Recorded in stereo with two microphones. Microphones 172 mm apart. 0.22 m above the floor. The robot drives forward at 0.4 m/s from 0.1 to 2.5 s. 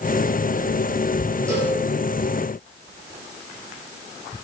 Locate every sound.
1.5 s a cowbell: 15° right (ahead or behind), 6.5 m